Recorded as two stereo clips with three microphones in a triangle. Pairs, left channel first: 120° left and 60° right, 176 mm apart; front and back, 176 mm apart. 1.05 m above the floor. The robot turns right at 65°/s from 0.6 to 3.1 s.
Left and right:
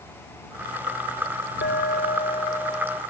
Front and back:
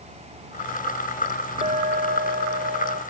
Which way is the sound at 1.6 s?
125° left.